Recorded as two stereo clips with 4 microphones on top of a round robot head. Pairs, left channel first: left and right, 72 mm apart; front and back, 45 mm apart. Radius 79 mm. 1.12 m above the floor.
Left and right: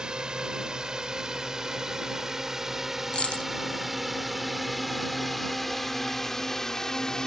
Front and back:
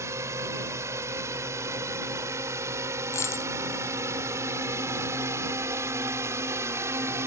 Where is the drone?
170° right; by 7.3 s 175° left.